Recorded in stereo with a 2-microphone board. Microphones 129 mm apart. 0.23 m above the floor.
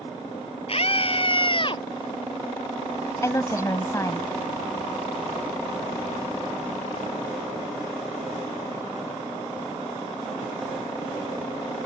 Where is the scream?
50° left (ahead or behind); by 1.8 s 40° left (ahead or behind).